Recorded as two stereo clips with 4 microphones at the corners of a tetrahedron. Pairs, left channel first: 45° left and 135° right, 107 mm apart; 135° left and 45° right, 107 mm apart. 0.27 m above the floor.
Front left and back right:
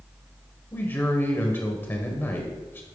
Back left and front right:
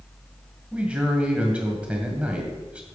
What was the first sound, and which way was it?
A man speaking, 15° left.